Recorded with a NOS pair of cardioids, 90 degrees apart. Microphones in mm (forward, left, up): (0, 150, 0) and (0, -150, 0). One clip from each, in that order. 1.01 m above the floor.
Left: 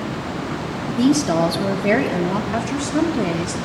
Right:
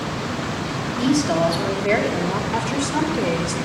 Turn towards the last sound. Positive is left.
turn(degrees=15)